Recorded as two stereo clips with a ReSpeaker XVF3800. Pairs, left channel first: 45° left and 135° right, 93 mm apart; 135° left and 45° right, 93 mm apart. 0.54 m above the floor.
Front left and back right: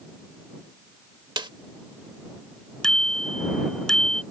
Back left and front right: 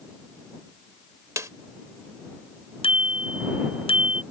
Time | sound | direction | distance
1.4 | a snare drum | 100° right | ?
2.8 | a bicycle bell | 130° left | ?